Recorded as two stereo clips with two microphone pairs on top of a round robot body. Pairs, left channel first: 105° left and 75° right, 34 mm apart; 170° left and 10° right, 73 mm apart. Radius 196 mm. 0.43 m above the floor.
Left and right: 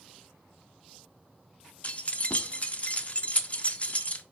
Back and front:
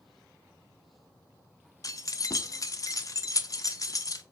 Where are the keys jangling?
145° left, 0.7 m.